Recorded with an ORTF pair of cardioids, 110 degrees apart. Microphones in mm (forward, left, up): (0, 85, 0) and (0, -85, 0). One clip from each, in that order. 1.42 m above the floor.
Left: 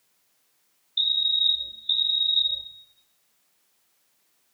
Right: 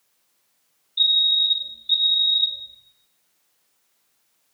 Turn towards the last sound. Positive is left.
turn(degrees=30)